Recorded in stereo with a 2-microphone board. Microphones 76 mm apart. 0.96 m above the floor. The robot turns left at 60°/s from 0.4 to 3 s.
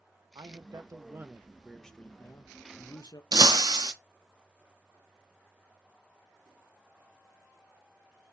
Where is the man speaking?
100° right, 0.6 m; by 3.2 s 105° left, 0.6 m.